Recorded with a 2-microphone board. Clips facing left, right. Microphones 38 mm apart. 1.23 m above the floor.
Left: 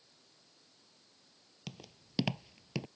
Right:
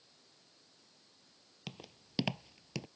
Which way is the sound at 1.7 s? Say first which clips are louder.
Even; 15° right (ahead or behind).